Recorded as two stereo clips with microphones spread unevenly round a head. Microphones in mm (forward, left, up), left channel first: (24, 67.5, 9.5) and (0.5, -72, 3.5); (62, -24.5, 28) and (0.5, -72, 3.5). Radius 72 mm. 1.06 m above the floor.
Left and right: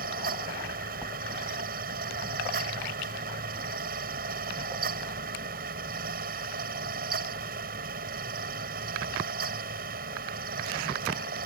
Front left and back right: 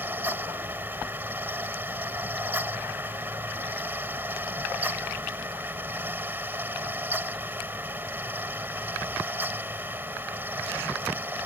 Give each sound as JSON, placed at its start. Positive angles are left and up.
{"t": 0.0, "sound": "a fan", "azimuth_deg": -75}